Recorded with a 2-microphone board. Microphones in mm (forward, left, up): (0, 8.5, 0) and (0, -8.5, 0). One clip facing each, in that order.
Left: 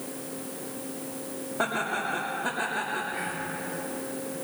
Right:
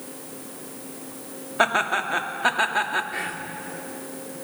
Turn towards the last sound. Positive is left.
turn(degrees=-55)  # may be behind; listen again after turning